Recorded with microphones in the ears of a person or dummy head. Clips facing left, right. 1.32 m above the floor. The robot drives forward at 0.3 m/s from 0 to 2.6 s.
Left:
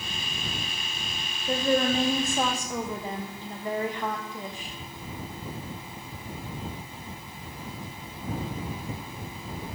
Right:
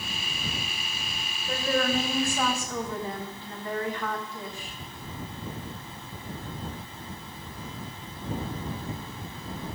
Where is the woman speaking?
30° left (ahead or behind), 0.8 m; by 4.7 s 20° left (ahead or behind), 1.1 m.